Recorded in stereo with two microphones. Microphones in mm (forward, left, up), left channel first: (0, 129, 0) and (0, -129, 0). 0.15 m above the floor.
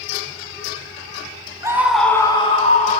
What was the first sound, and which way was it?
A scream, 10° right (ahead or behind).